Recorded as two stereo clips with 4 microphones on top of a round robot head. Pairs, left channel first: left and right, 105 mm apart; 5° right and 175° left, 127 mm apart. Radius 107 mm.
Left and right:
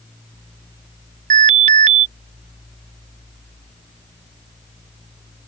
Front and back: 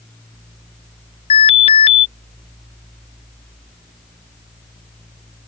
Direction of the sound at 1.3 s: 60° right.